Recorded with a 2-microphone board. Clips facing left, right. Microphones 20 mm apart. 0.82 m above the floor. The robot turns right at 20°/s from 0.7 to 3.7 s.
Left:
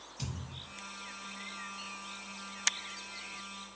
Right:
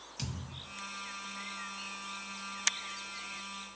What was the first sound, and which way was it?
A thud, 65° right (ahead or behind).